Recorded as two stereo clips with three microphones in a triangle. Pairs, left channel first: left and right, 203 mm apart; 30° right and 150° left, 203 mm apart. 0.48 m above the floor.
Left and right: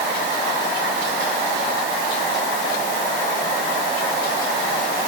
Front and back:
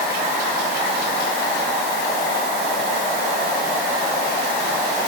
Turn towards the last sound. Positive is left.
No sound to turn to.